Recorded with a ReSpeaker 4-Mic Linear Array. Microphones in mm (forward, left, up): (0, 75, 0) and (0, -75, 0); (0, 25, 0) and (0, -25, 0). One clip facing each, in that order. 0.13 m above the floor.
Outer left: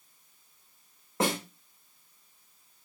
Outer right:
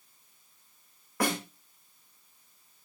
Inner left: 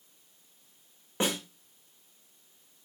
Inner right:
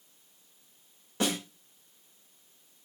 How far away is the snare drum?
About 7 m.